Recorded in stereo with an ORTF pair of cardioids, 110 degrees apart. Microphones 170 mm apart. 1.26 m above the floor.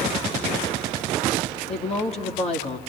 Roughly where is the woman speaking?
Ahead left.